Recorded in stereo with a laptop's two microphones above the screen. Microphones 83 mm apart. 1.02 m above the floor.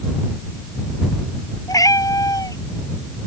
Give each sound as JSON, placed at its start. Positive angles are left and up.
{"t": 1.7, "sound": "a cat meowing", "side_deg": 45}